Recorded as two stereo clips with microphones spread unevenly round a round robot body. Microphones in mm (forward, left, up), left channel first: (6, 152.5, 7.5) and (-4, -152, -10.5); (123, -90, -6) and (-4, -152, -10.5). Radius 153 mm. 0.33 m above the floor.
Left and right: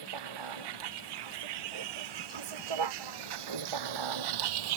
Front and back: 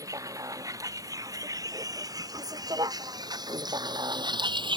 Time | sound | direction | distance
0.0 | a vehicle | 85° right | ?